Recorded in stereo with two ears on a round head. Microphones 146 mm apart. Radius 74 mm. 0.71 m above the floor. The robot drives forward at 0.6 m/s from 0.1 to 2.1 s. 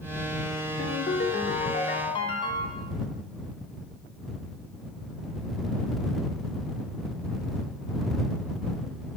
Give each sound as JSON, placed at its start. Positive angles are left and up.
{"t": 0.8, "sound": "a ringtone", "side_deg": 75, "distance_m": 0.5}